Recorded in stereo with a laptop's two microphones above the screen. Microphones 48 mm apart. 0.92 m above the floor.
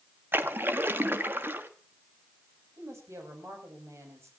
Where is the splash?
50° right (ahead or behind), 1.3 m.